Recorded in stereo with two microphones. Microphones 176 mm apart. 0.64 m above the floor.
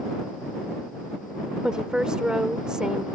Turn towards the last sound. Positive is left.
turn(degrees=-5)  # may be behind; listen again after turning